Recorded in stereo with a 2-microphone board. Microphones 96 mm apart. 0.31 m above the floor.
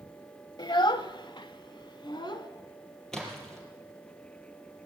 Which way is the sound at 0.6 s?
50° left (ahead or behind).